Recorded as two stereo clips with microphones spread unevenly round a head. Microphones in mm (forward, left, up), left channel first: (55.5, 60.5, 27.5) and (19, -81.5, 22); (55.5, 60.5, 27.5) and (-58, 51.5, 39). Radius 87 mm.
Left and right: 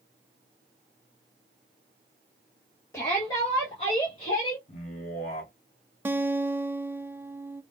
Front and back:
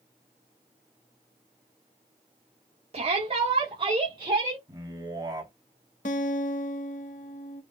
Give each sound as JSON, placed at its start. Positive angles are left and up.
{"t": 2.9, "sound": "a shout", "azimuth_deg": 150, "distance_m": 1.2}
{"t": 4.7, "sound": "a man speaking", "azimuth_deg": 125, "distance_m": 2.5}
{"t": 6.0, "sound": "a guitar", "azimuth_deg": -30, "distance_m": 0.5}